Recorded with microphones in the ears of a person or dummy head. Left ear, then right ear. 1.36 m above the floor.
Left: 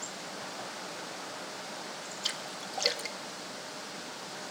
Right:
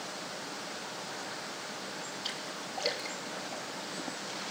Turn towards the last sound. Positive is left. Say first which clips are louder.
# left 5 dB
turn(degrees=25)  # may be behind; listen again after turning